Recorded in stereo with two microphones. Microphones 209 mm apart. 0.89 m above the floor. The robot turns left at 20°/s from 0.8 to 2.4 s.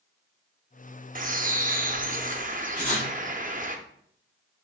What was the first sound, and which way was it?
A bird, 40° right (ahead or behind).